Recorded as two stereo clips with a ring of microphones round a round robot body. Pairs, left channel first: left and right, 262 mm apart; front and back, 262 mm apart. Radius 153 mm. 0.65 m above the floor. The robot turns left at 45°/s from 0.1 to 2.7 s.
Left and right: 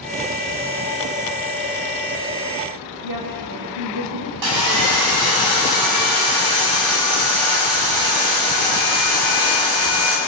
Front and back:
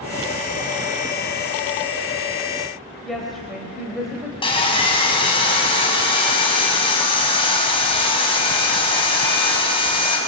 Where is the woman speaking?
90° right, 3.5 m.